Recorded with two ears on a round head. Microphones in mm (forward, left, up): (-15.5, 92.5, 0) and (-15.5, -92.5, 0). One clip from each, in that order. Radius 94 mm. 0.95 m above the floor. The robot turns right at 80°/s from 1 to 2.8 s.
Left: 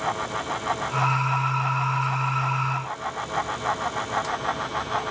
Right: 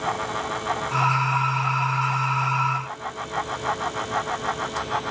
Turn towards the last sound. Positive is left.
No sound to turn to.